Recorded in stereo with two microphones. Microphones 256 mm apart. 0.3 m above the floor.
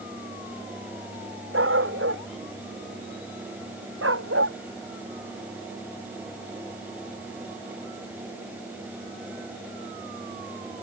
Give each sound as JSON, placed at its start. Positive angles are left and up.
{"t": 1.5, "sound": "a dog barking", "side_deg": -55}